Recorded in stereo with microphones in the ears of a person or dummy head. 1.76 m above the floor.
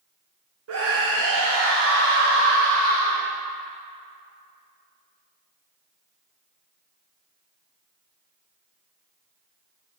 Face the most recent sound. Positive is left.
turn(degrees=-50)  # may be behind; listen again after turning